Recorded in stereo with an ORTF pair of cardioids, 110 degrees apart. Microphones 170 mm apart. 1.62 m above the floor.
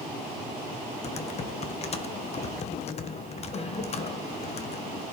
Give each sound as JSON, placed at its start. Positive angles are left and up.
{"t": 1.0, "sound": "typing on a keyboard", "azimuth_deg": 40, "distance_m": 1.2}